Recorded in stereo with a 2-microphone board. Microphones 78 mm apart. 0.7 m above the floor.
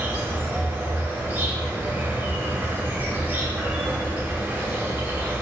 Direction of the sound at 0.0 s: 20° right (ahead or behind).